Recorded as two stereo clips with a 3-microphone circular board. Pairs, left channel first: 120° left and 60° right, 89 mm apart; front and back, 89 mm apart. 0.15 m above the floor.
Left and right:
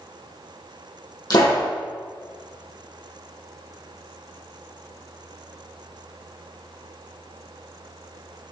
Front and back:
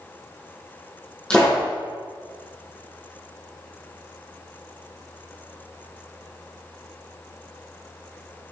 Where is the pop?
80° left, 3.5 m.